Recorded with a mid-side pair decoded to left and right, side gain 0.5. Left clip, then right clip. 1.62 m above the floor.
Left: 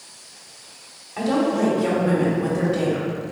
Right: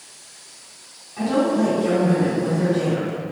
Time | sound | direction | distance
1.2 | a woman speaking | 60° left | 1.2 m